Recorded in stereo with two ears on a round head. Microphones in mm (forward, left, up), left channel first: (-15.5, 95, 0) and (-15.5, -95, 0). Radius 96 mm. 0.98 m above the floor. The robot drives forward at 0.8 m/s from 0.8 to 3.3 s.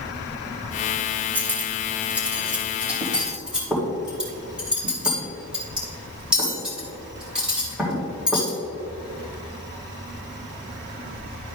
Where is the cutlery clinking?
10° right (ahead or behind), 1.9 m; by 8.6 s 5° right (ahead or behind), 3.5 m.